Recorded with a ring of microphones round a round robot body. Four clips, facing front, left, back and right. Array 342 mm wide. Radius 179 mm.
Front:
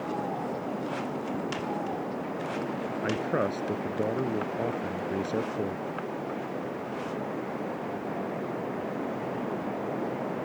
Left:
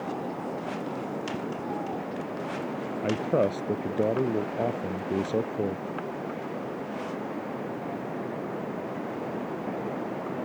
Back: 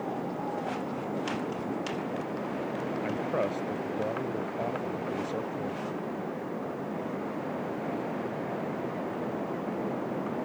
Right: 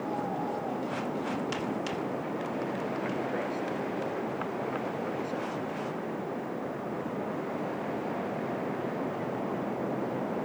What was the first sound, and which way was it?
A man speaking, 65° left.